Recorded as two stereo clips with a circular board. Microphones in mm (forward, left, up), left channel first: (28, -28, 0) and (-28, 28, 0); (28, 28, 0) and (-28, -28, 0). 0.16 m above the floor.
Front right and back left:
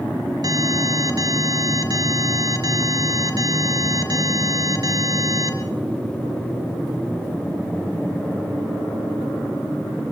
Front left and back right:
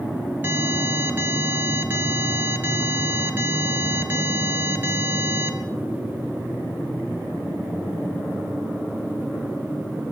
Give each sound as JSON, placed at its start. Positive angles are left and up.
{"t": 0.4, "sound": "an alarm", "azimuth_deg": 160, "distance_m": 3.5}